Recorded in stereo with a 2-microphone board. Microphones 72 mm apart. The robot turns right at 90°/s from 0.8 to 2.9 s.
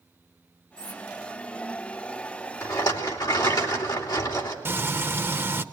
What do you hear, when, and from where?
0.8 s cutlery clinking: 60° right (ahead or behind), 2.5 m; by 1.0 s 70° right (ahead or behind), 2.5 m
2.6 s a rattle: 40° left (ahead or behind), 2.5 m; by 4.5 s 65° left (ahead or behind), 2.5 m
4.7 s frying: 30° right (ahead or behind), 0.8 m